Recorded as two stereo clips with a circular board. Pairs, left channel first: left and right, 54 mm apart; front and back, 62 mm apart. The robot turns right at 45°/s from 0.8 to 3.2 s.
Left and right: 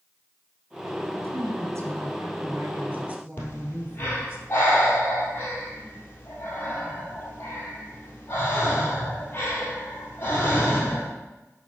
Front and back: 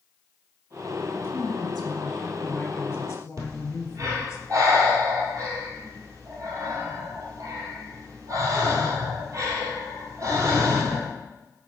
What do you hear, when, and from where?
1.1 s a woman speaking: 125° right, 1.7 m; by 4.4 s 35° right, 1.7 m
3.4 s breathing: 145° left, 1.9 m